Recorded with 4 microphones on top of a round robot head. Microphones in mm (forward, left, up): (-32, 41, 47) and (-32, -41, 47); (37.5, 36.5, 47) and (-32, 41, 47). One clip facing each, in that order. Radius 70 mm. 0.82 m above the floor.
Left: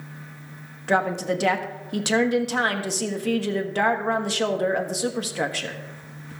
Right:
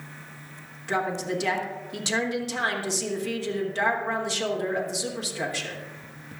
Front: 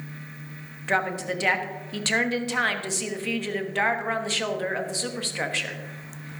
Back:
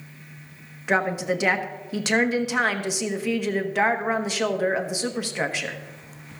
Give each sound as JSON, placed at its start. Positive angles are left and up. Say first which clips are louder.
{"t": 0.9, "sound": "a woman speaking", "louder": "left 5 dB, back 3 dB", "azimuth_deg": 100, "distance_m": 1.4}